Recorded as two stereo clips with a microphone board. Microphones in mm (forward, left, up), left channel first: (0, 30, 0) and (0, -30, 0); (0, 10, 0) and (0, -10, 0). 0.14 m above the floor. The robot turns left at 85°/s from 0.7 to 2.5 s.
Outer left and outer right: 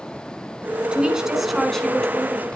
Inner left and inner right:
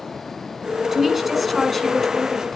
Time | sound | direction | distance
0.9 | a woman speaking | 15° right (ahead or behind) | 1.3 m